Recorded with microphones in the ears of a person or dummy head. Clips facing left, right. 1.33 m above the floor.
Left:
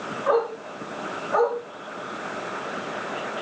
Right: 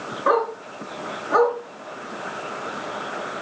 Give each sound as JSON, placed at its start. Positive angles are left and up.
{"t": 0.3, "sound": "a dog barking", "side_deg": -80, "distance_m": 5.5}